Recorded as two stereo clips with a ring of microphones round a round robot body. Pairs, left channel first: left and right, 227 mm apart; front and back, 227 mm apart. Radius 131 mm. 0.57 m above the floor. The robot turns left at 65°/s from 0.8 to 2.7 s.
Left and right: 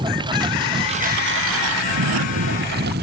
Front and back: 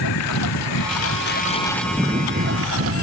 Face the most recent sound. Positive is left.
turn(degrees=-145)